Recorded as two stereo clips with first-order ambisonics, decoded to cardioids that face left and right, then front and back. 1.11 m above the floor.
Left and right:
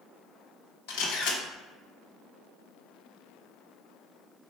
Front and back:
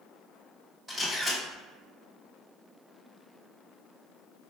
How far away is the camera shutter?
About 1.1 m.